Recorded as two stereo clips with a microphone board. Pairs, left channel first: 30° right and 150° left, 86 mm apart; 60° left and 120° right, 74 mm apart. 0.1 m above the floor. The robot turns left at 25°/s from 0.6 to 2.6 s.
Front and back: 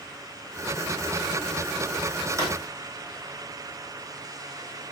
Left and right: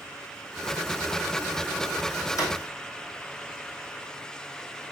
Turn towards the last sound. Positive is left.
turn(degrees=95)